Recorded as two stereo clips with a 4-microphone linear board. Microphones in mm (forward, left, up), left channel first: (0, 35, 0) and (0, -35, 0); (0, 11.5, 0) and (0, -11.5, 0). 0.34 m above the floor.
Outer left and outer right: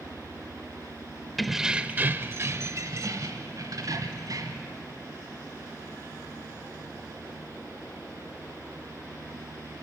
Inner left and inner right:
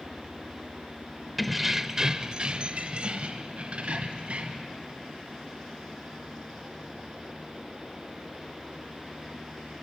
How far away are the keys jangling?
About 0.7 m.